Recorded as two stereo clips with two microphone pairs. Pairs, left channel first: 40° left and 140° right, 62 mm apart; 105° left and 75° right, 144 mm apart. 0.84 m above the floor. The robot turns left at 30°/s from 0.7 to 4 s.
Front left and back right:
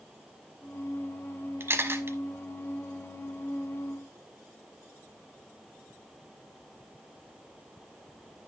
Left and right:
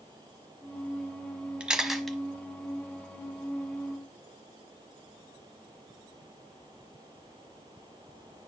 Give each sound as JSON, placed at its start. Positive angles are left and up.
{"t": 1.6, "sound": "a camera shutter", "azimuth_deg": -155, "distance_m": 0.8}